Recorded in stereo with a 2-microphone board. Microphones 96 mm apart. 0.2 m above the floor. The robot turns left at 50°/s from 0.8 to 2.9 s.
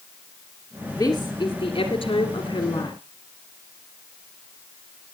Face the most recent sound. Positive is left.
turn(degrees=65)